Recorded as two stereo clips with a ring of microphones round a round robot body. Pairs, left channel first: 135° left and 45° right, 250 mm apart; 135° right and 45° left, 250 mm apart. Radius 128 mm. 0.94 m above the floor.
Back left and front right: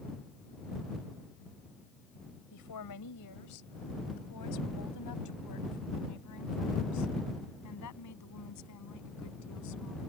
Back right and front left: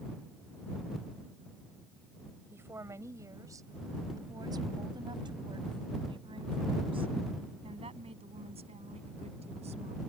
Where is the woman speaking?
125° left; by 10.0 s 110° left.